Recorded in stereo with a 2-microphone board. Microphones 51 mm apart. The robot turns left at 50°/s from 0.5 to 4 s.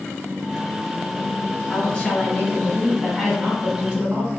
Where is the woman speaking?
55° left, 1.8 m; by 4.3 s 60° right, 1.8 m.